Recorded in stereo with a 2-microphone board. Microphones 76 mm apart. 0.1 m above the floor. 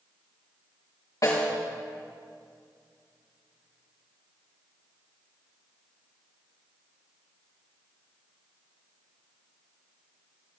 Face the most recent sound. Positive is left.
turn(degrees=45)  # may be behind; listen again after turning